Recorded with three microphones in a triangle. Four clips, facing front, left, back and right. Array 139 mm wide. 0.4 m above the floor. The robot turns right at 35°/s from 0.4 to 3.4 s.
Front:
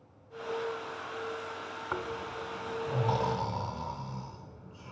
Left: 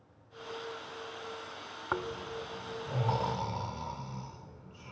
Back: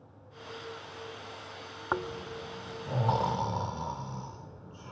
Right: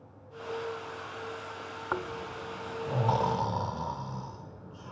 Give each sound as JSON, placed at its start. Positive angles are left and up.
{"t": 1.9, "sound": "snoring", "azimuth_deg": -165, "distance_m": 0.9}